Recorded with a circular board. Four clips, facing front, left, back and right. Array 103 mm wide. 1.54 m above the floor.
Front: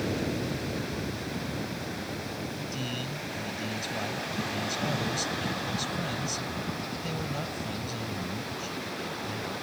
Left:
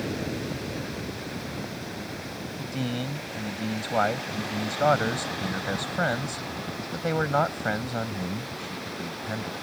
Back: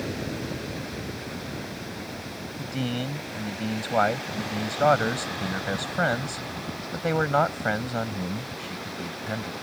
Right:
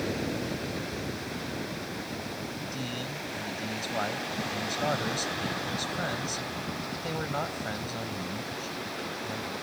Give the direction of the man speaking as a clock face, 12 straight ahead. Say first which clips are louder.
Left 5 dB, back 5 dB; 7 o'clock.